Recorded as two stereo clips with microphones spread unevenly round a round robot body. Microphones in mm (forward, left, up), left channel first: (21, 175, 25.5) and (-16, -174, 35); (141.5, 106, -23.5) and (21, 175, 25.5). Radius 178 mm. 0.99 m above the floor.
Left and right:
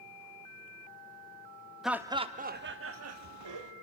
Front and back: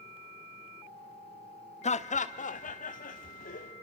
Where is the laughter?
5° right, 1.6 m; by 3.7 s 60° right, 2.5 m.